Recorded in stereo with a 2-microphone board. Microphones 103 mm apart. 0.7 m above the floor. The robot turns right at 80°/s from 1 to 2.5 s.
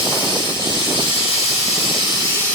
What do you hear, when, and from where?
0.0 s running water: 45° left, 7 m; by 2.5 s 165° left, 7 m